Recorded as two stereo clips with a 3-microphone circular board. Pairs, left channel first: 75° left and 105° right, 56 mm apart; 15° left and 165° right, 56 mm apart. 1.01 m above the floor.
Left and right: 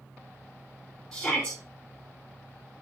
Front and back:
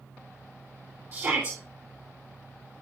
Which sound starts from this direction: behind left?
A shout, at 1.1 s.